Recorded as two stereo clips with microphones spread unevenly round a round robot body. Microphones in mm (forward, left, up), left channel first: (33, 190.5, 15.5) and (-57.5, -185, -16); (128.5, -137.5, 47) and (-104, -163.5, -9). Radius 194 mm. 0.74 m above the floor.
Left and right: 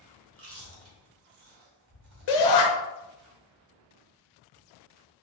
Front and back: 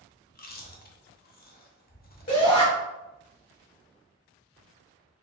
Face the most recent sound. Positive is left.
turn(degrees=85)